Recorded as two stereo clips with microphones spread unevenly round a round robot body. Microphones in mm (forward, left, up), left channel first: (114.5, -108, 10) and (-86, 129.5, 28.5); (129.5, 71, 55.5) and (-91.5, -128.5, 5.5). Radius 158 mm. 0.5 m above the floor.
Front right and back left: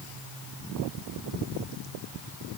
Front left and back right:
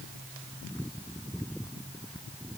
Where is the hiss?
I don't hear a hiss.